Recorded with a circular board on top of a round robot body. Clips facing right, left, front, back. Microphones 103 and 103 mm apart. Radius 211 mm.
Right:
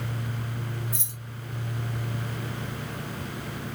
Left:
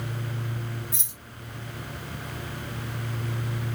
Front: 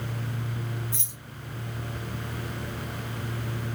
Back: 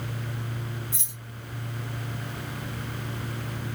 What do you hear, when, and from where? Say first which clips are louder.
0.9 s keys jangling: right 3 dB, front 2 dB; 105° left, 0.6 m